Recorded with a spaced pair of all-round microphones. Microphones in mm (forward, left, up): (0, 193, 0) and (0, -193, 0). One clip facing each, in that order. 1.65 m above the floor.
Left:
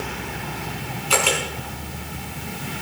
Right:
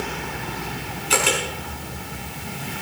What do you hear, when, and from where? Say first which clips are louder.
1.1 s a camera shutter: even; 30° right (ahead or behind), 5 m